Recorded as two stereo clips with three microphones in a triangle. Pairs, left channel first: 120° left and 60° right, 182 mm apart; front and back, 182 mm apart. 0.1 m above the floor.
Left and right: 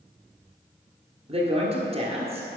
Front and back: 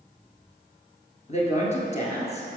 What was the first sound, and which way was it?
A woman speaking, 25° right.